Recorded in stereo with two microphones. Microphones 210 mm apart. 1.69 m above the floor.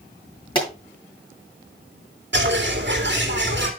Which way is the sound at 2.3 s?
60° right (ahead or behind).